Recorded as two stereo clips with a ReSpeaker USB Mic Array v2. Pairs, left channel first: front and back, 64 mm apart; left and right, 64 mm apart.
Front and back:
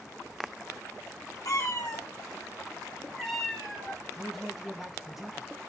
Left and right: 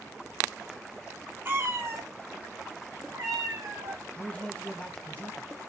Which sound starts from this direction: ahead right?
A cat meowing, at 1.4 s.